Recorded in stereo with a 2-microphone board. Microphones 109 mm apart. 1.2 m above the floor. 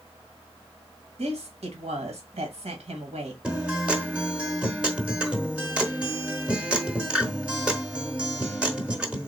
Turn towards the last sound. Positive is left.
turn(degrees=-10)  # may be behind; listen again after turning